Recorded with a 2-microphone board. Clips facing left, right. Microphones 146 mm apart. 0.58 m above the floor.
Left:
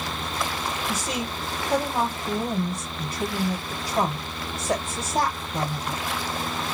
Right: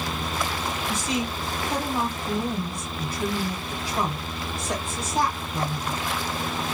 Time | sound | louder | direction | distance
0.9 | a woman speaking | right 2 dB | 45° left (ahead or behind) | 3.5 m